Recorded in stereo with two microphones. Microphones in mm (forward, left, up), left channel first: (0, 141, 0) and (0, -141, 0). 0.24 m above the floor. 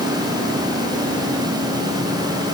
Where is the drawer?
No drawer in this recording.